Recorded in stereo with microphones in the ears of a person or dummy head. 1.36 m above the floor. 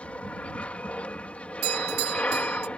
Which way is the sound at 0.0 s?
5° left (ahead or behind).